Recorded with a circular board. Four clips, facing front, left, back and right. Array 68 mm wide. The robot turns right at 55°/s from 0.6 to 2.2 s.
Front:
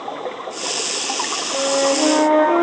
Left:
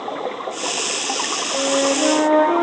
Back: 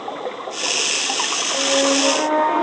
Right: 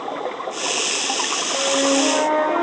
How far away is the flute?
About 2.5 m.